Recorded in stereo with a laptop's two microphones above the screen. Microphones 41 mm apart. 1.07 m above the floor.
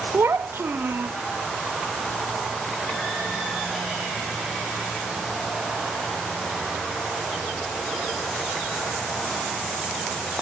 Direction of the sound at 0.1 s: 60° right (ahead or behind).